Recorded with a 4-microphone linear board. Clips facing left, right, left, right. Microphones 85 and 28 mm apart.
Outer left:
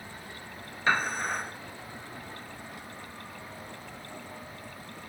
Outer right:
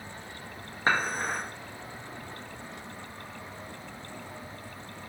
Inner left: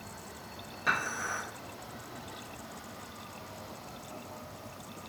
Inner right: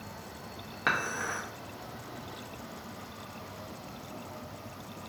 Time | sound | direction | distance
0.9 | dishes clattering | 40° right (ahead or behind) | 1.1 m